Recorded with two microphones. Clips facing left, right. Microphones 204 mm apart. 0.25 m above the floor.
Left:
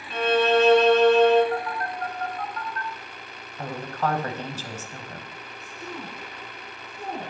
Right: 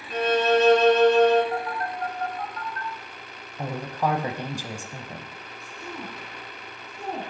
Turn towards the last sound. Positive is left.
turn(degrees=5)  # may be behind; listen again after turning